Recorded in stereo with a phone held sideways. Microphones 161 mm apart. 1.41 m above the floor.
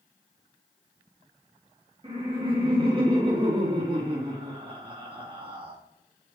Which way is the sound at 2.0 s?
35° right (ahead or behind).